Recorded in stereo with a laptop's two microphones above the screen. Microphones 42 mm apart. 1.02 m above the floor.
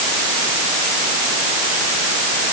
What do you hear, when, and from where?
Only background noise.